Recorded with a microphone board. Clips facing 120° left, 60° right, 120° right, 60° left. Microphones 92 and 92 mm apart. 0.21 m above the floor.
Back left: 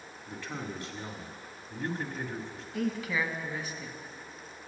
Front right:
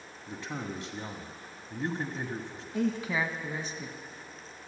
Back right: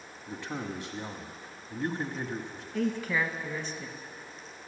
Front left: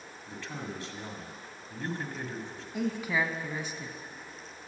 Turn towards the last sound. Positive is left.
turn(degrees=-10)